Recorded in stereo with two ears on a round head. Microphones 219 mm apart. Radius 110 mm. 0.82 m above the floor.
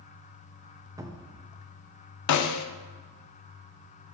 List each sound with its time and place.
1.0 s a cupboard door: 15° right (ahead or behind), 0.7 m
2.3 s a snare drum: 80° left, 0.6 m